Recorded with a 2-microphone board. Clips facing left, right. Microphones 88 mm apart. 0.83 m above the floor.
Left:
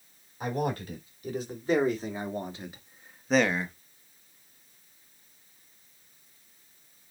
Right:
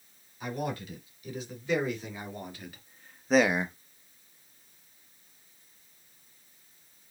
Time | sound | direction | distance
0.4 | a man speaking | 45° left (ahead or behind) | 3 m